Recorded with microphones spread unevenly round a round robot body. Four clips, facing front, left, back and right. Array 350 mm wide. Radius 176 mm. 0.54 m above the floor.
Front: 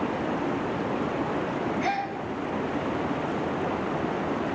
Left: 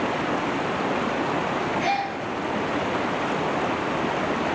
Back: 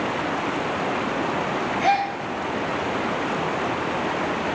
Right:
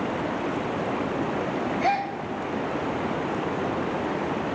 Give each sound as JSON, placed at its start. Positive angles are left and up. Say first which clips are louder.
{"t": 1.8, "sound": "a gasp", "louder": "even, back 7 dB", "azimuth_deg": -115, "distance_m": 1.8}